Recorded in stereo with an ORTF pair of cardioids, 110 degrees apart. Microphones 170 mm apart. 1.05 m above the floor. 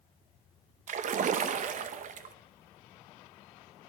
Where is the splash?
50° right, 0.8 m.